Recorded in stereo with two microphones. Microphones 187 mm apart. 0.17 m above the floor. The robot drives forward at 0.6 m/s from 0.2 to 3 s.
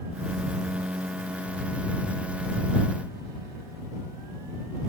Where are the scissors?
I don't hear scissors.